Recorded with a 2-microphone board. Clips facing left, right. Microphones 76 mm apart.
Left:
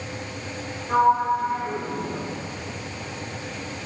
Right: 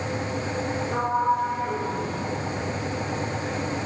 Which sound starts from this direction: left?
A sliding door, at 0.9 s.